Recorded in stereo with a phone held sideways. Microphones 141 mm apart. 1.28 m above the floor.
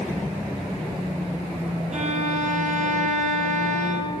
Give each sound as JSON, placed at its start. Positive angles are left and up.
{"t": 1.9, "sound": "a violin", "side_deg": -55, "distance_m": 1.6}